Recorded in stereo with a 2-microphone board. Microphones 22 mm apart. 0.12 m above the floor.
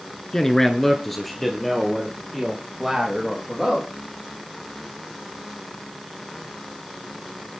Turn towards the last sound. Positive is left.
turn(degrees=-5)  # may be behind; listen again after turning